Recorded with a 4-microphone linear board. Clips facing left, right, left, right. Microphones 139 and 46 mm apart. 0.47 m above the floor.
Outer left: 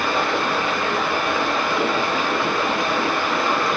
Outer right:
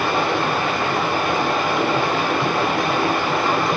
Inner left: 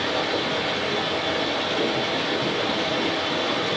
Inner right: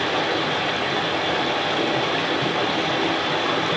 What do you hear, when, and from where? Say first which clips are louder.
0.0 s running water: outer right 2 dB, inner right 2 dB; 55° right (ahead or behind), 1.4 m